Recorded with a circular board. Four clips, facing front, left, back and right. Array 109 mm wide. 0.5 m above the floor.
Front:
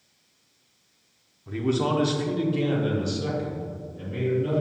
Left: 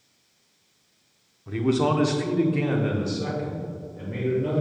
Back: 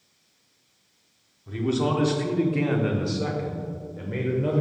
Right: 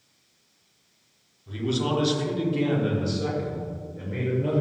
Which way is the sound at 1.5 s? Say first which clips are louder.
Left 4 dB, even; 75° left.